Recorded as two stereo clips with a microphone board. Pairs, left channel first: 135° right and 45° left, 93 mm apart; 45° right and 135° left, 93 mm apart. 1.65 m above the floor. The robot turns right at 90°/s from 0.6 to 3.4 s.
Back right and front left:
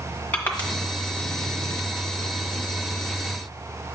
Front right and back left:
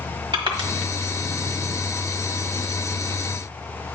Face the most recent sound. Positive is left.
turn(degrees=45)